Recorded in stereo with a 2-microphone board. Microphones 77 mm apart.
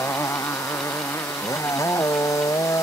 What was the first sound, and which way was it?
A motorcycle, 35° left (ahead or behind).